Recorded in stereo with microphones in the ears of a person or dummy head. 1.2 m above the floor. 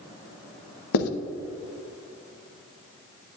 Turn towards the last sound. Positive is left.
turn(degrees=85)